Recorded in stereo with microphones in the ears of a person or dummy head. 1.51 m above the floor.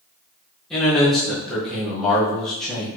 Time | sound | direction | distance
0.7 | a man speaking | centre (ahead or behind) | 1.3 m